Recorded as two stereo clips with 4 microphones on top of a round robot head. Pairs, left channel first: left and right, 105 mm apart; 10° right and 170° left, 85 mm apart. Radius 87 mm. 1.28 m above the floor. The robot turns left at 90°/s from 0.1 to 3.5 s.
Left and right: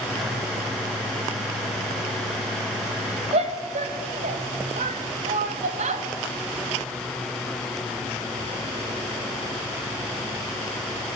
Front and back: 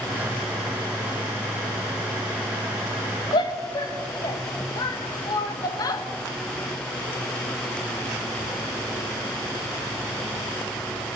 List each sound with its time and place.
3.3 s a shout: 50° right, 1.6 m; by 6.0 s 65° right, 1.6 m